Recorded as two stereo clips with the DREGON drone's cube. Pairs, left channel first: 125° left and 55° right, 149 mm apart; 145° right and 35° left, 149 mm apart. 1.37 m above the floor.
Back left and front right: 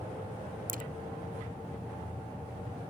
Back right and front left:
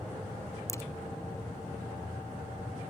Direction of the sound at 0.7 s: 75° right.